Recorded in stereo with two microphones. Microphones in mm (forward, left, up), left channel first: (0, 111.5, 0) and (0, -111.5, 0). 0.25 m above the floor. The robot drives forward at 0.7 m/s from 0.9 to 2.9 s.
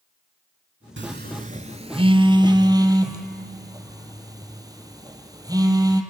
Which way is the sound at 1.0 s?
55° right (ahead or behind).